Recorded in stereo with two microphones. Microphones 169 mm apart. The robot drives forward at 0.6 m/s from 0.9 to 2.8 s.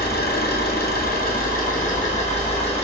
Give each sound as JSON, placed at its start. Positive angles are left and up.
{"t": 0.0, "sound": "an engine running", "side_deg": 70, "distance_m": 1.2}